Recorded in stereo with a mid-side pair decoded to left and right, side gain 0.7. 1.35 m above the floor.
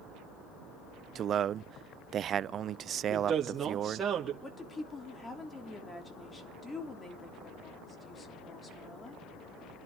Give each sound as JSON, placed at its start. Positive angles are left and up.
{"t": 1.1, "sound": "a man speaking", "azimuth_deg": -40, "distance_m": 0.5}
{"t": 3.1, "sound": "a woman speaking", "azimuth_deg": -25, "distance_m": 3.0}
{"t": 4.4, "sound": "a woman speaking", "azimuth_deg": 25, "distance_m": 3.5}